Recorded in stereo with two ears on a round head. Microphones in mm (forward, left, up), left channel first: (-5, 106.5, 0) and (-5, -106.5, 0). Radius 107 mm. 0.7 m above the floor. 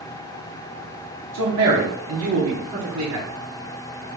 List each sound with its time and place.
1.3 s a man speaking: 55° right (ahead or behind), 1.6 m; by 3.3 s 70° right (ahead or behind), 2.5 m